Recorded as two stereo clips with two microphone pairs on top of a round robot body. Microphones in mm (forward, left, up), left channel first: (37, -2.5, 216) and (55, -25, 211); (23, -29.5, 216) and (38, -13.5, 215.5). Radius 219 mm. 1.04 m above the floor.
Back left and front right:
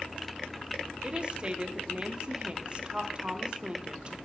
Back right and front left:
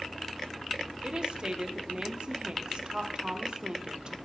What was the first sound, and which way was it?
A woman speaking, straight ahead.